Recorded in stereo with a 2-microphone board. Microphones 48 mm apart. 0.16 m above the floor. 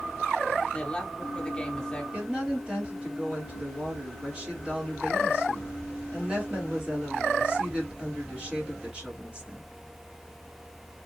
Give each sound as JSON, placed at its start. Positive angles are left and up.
{"t": 0.7, "sound": "a woman speaking", "side_deg": 20, "distance_m": 1.0}
{"t": 2.1, "sound": "a woman speaking", "side_deg": -20, "distance_m": 2.5}